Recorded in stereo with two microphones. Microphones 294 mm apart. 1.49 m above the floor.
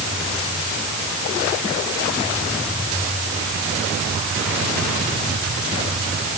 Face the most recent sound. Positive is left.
No sound to turn to.